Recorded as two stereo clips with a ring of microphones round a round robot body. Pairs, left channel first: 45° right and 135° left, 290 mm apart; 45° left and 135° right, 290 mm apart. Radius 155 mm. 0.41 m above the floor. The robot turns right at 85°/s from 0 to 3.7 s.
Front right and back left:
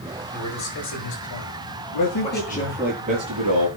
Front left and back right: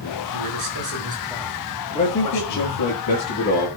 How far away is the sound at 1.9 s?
About 6.5 m.